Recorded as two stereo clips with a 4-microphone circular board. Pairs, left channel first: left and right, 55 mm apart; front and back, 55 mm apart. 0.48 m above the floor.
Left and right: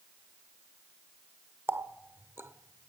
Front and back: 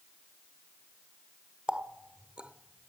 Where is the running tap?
115° right, 0.7 m.